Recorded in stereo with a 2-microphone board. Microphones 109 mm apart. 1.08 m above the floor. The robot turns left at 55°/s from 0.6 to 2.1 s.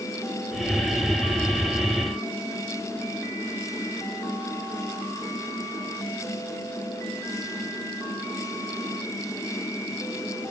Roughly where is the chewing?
I don't hear chewing.